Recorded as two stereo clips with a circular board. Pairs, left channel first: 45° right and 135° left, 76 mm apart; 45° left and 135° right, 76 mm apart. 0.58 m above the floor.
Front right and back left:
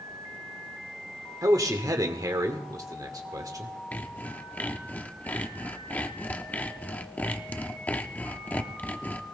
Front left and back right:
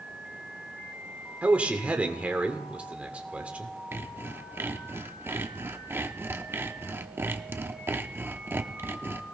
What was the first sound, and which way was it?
A man speaking, 155° left.